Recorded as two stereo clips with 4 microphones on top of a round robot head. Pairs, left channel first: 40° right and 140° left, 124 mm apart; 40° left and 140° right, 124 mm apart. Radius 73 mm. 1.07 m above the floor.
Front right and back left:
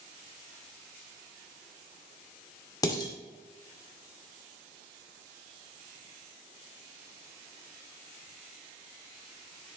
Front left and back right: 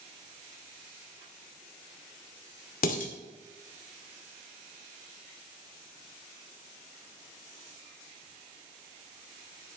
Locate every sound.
2.8 s dishes clattering: 20° left, 2 m